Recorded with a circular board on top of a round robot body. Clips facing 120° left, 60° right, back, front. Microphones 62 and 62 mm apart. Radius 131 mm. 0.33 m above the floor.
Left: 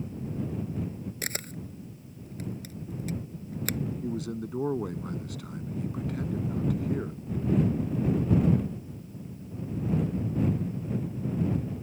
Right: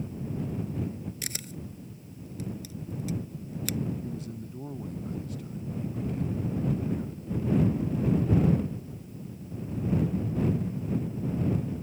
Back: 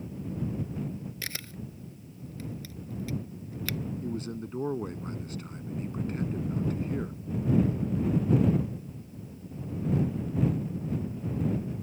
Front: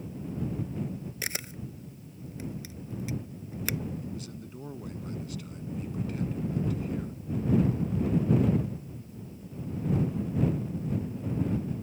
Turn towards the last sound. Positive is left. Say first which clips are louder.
# left 5 dB, back 5 dB
turn(degrees=130)